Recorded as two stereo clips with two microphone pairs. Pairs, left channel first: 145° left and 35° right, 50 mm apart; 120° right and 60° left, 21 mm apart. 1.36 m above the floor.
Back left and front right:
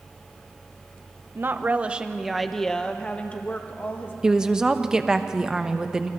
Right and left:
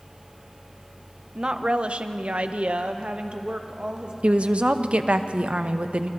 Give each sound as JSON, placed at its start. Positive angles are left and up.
{"t": 1.4, "sound": "a woman speaking", "azimuth_deg": 10, "distance_m": 1.0}
{"t": 4.2, "sound": "a woman speaking", "azimuth_deg": 40, "distance_m": 1.0}